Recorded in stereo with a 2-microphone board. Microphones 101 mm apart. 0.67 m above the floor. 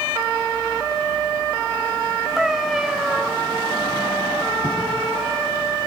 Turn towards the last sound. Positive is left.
turn(degrees=25)  # may be behind; listen again after turning